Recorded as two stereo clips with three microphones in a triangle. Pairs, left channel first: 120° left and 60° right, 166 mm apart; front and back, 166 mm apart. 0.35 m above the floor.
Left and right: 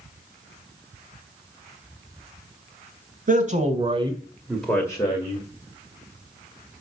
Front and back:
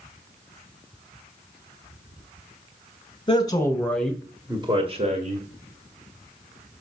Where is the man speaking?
55° right, 2 m; by 5.5 s 165° left, 2 m.